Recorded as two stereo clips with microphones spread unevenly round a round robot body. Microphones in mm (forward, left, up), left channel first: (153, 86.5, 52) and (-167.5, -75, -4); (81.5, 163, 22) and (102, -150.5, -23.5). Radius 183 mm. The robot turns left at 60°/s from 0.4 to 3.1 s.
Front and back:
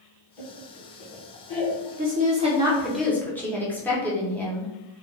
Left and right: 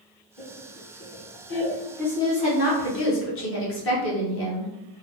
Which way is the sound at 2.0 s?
170° right.